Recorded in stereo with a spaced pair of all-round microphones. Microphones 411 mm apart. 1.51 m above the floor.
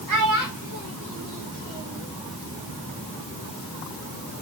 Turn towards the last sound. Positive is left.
turn(degrees=-50)  # may be behind; listen again after turning